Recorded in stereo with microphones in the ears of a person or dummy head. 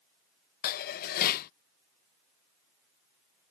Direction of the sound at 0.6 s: 50° left (ahead or behind).